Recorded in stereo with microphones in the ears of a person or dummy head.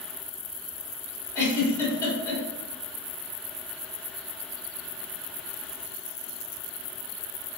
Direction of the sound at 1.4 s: 15° left (ahead or behind).